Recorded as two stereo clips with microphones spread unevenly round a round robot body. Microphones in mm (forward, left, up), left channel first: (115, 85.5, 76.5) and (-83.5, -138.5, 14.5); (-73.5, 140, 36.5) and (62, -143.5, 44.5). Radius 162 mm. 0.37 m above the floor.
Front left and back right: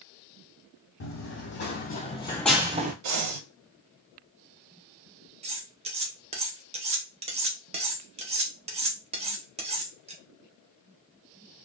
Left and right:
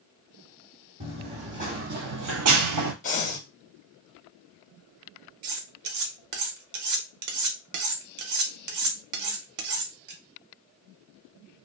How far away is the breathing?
About 0.5 m.